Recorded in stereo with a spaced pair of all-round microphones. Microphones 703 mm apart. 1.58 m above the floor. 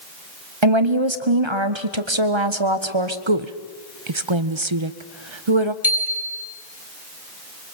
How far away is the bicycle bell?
About 3.5 m.